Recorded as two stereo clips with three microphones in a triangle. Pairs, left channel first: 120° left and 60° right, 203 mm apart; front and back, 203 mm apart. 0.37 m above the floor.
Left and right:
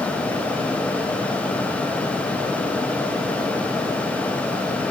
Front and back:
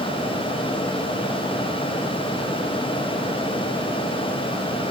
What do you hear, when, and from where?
Only background noise.